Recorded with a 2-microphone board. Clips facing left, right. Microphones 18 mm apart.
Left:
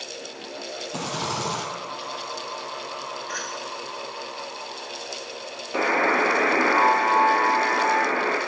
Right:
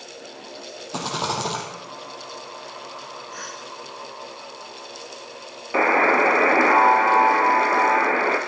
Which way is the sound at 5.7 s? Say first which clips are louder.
Right 4 dB; 30° right (ahead or behind).